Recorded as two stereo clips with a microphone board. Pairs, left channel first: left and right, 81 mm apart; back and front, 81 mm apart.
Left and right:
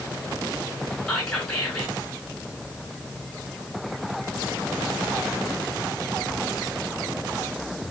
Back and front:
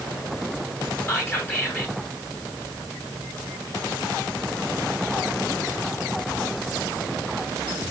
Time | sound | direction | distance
1.1 | whispering | 165° left | 1.3 m